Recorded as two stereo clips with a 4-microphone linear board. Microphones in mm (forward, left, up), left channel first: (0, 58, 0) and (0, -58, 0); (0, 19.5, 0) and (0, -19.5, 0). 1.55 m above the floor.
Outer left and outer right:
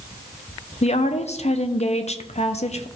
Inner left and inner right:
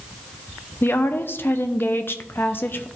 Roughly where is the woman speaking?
Left.